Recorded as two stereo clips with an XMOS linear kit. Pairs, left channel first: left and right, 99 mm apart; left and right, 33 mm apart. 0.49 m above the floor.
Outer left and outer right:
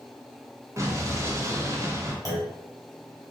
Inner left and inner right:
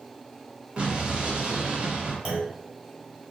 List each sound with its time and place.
0.8 s an explosion: 30° right (ahead or behind), 0.7 m
2.2 s a clunk: 35° right (ahead or behind), 1.3 m